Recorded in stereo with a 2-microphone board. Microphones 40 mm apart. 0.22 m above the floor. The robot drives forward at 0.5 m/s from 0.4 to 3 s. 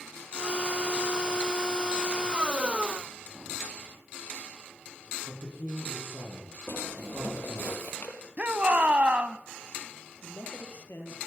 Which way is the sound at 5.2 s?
70° right (ahead or behind).